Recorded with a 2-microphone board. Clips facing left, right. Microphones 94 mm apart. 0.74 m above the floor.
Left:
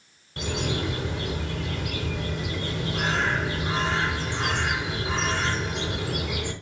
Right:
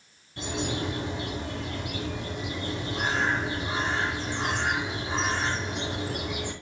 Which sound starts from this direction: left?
A bird, at 0.4 s.